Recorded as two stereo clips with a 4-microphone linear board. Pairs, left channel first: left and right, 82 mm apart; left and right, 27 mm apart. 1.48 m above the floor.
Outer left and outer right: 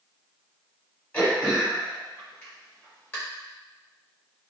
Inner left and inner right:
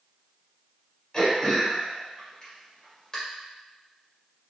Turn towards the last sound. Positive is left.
turn(degrees=25)  # may be behind; listen again after turning